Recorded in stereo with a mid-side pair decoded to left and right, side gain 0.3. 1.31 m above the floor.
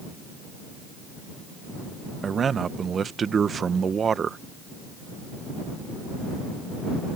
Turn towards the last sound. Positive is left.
turn(degrees=-60)